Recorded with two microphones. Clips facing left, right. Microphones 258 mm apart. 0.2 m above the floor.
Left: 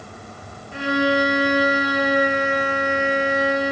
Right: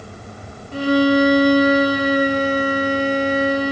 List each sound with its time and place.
0.7 s a violin: 40° right (ahead or behind), 3 m